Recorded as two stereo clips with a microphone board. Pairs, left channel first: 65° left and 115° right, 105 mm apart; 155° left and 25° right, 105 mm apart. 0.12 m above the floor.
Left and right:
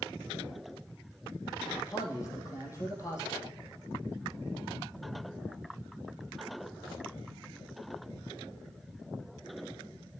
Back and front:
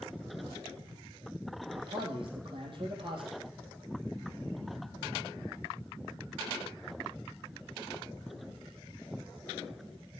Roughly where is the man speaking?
Ahead.